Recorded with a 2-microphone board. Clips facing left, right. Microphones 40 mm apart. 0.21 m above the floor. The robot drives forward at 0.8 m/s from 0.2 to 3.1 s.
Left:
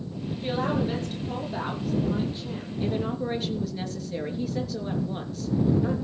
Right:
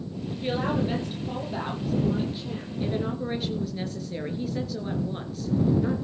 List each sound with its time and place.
0.4 s a woman speaking: 15° right (ahead or behind), 5.5 m; by 2.7 s 10° right (ahead or behind), 7 m
2.8 s a woman speaking: 5° right (ahead or behind), 3 m